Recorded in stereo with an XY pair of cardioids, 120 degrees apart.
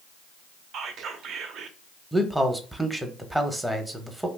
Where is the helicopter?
I don't hear a helicopter.